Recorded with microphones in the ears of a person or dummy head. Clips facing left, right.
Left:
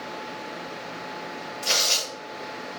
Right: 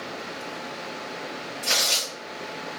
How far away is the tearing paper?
About 1.0 m.